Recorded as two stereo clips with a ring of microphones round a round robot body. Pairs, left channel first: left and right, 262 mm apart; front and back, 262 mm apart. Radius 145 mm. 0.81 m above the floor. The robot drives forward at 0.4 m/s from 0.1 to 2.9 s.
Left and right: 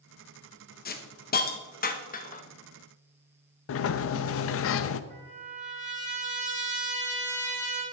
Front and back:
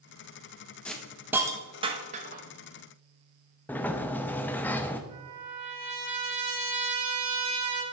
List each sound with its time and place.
0.8 s a hiss: 85° left, 1.0 m; by 2.4 s 135° left, 1.2 m
3.7 s a sliding door: 80° left, 0.5 m
5.1 s a trumpet: 155° right, 4 m